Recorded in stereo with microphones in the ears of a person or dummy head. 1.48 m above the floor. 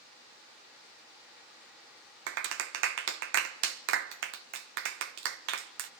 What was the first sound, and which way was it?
A clap, 65° right (ahead or behind).